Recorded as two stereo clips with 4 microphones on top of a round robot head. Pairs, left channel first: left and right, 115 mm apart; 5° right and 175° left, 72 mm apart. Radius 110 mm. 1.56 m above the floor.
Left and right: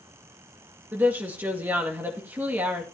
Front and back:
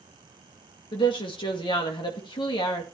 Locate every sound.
0.9 s a woman speaking: 15° right, 2 m